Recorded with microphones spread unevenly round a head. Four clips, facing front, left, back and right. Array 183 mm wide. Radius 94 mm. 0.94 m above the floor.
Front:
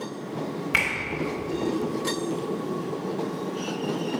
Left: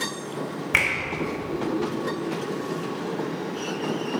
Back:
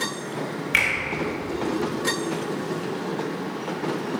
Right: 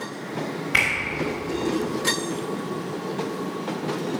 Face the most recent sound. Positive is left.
turn(degrees=75)